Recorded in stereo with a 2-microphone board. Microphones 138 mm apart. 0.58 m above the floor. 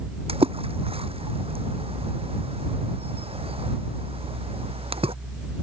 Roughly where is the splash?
Right.